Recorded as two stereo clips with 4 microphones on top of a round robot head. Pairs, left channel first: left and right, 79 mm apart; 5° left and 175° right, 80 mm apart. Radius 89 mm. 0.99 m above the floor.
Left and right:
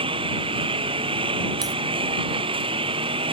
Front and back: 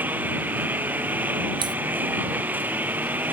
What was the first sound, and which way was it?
A lawn mower, 105° right.